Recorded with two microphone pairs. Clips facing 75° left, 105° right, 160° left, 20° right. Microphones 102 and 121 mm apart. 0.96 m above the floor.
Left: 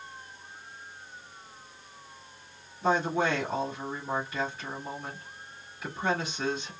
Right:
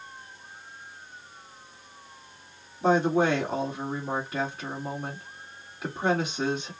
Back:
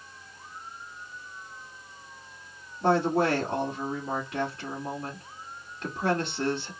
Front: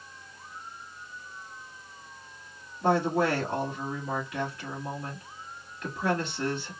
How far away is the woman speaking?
About 1.6 m.